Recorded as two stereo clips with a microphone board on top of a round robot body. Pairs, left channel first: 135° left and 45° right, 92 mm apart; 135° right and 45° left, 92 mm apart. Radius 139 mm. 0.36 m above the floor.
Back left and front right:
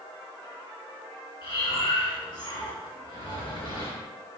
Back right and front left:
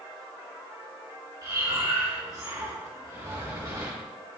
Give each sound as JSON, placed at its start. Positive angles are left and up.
{"t": 1.4, "sound": "breathing", "azimuth_deg": 100, "distance_m": 3.0}